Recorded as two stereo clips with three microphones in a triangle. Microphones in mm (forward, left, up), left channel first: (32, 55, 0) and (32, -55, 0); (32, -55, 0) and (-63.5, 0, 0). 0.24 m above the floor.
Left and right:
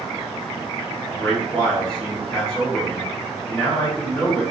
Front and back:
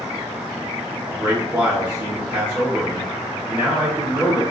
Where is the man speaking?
155° left, 1.1 m.